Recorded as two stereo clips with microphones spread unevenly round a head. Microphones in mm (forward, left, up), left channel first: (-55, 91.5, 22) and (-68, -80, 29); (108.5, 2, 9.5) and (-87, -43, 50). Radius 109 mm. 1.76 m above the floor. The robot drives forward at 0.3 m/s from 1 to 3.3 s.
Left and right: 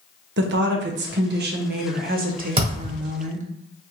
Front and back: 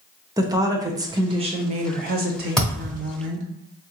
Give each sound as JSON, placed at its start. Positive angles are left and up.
{"t": 0.4, "sound": "a woman speaking", "azimuth_deg": -100, "distance_m": 0.7}
{"t": 2.6, "sound": "a thud", "azimuth_deg": -95, "distance_m": 1.5}